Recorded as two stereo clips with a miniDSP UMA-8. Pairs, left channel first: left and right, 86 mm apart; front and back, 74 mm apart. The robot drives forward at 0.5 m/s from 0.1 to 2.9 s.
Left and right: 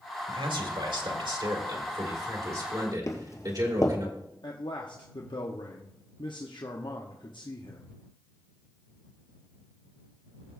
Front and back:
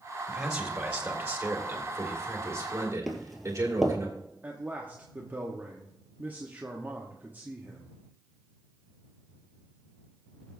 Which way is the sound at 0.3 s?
95° right.